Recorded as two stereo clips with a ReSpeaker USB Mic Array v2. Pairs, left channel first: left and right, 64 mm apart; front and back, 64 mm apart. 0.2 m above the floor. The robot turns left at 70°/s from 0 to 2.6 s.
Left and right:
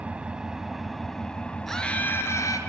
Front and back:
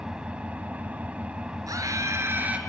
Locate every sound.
0.0 s an engine running: 120° right, 1.0 m; by 2.7 s 60° left, 1.0 m
1.7 s a scream: 175° left, 4 m; by 2.6 s 110° left, 4 m